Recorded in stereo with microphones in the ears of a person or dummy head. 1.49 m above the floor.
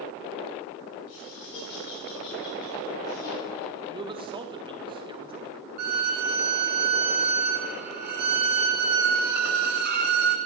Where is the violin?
60° right (ahead or behind), 0.8 m.